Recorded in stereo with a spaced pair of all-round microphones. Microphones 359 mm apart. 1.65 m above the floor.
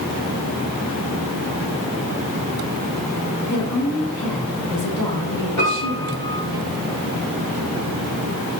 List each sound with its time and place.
3.5 s a woman speaking: 45° left (ahead or behind), 2.5 m; by 6.6 s 85° left, 3 m
5.6 s a piano: 65° left (ahead or behind), 5 m